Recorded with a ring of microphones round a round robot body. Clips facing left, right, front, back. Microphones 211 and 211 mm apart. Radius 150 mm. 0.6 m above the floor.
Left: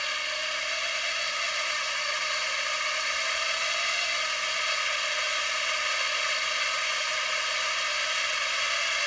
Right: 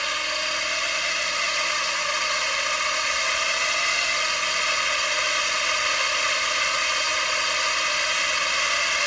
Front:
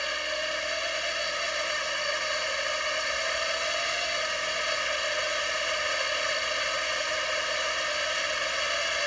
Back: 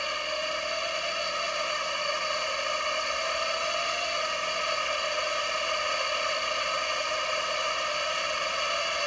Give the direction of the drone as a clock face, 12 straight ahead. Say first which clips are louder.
Right 6 dB, even; 3 o'clock.